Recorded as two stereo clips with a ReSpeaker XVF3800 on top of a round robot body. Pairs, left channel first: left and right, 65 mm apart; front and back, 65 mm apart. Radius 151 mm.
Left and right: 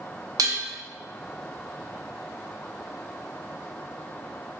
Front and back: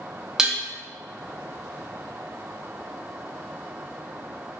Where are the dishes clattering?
100° right, 0.7 m.